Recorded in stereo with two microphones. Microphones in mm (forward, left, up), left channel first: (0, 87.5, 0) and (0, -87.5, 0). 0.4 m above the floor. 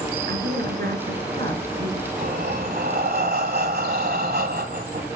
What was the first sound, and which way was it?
A woman speaking, 65° right (ahead or behind).